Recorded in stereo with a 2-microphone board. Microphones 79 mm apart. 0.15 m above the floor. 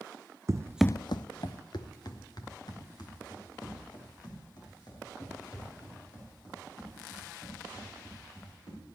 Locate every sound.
0.5 s running footsteps: 40° right (ahead or behind), 0.6 m; by 8.8 s 55° left (ahead or behind), 11 m